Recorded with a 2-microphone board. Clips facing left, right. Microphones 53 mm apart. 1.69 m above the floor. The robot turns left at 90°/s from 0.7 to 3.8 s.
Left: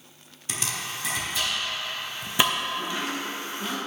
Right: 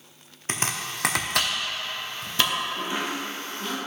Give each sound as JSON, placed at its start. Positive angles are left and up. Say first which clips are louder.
{"t": 0.5, "sound": "chopping", "louder": "right 3 dB", "side_deg": -45, "distance_m": 0.8}
{"t": 2.8, "sound": "chopping", "louder": "right 1 dB", "side_deg": -55, "distance_m": 1.7}